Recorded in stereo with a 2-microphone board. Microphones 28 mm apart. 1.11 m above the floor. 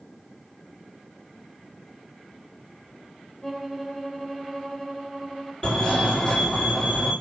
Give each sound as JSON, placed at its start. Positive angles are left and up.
{"t": 3.4, "sound": "a violin", "side_deg": 5, "distance_m": 0.9}
{"t": 5.6, "sound": "a fire alarm", "side_deg": 25, "distance_m": 1.7}